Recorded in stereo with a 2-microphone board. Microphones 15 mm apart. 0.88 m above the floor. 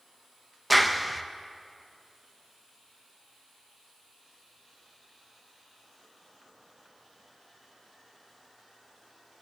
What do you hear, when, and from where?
0.7 s a clap: 5° left (ahead or behind), 0.6 m